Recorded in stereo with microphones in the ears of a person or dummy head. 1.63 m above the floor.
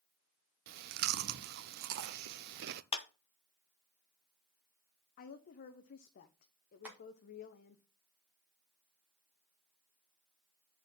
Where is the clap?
35° left (ahead or behind), 1.1 m.